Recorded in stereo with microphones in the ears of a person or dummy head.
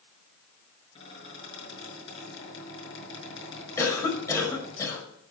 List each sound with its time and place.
0.9 s a squeak: 35° left (ahead or behind), 6.5 m
3.8 s a cough: 15° left (ahead or behind), 5.5 m